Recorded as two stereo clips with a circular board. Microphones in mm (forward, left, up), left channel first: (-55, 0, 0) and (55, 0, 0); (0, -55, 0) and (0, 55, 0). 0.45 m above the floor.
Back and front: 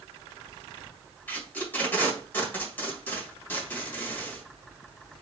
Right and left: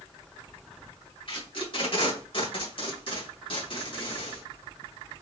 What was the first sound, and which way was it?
Tape being pulled, 110° right.